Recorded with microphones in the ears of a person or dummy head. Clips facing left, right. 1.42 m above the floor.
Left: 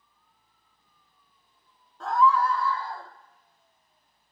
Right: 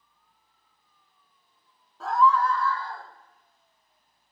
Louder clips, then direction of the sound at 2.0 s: Even; 5° right (ahead or behind).